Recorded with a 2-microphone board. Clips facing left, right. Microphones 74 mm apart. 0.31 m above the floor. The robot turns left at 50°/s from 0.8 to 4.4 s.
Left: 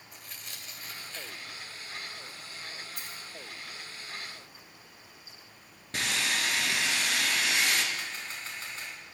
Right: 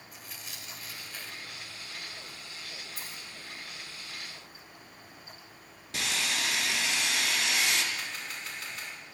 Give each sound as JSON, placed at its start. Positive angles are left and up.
{"t": 0.1, "sound": "tearing paper", "side_deg": -5, "distance_m": 1.4}
{"t": 3.0, "sound": "a dropped coin", "side_deg": 75, "distance_m": 1.5}
{"t": 5.9, "sound": "sawing", "side_deg": 45, "distance_m": 1.8}
{"t": 7.9, "sound": "a camera shutter", "side_deg": 35, "distance_m": 3.5}